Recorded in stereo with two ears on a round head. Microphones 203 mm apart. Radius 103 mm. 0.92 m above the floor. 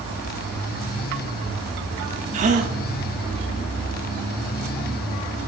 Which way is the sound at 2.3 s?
30° right (ahead or behind).